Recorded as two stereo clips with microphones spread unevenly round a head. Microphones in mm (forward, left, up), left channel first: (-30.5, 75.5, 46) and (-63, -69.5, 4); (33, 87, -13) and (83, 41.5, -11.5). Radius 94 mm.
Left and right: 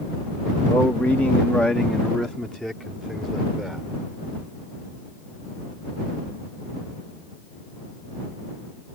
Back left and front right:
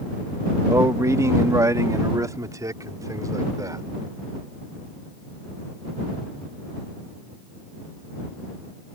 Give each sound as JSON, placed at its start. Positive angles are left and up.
{"t": 0.7, "sound": "a man speaking", "azimuth_deg": 0}